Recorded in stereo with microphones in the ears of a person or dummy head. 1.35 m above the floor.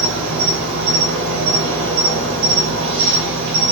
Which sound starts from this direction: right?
An insect, at 0.0 s.